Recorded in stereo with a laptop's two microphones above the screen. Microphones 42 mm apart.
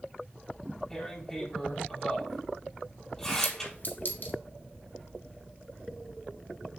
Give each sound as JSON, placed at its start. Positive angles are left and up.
{"t": 0.9, "sound": "tearing paper", "side_deg": 10, "distance_m": 4.5}
{"t": 3.4, "sound": "a clink", "side_deg": 50, "distance_m": 2.5}